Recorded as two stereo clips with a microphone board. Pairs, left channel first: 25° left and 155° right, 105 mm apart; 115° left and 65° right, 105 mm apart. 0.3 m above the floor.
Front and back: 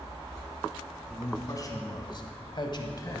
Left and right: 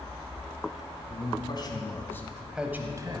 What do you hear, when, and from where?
1.1 s a man speaking: 85° left, 2.5 m; by 3.2 s 30° right, 1.6 m